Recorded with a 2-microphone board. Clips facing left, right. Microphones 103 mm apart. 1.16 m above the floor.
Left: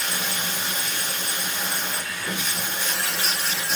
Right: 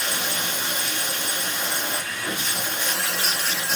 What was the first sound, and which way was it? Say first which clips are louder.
Running water: right 1 dB; 80° right.